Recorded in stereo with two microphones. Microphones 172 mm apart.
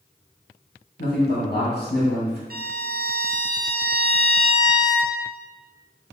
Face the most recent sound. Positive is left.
turn(degrees=-65)  # may be behind; listen again after turning